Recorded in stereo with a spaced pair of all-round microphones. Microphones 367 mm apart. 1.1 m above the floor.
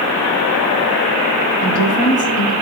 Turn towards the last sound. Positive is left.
turn(degrees=55)  # may be behind; listen again after turning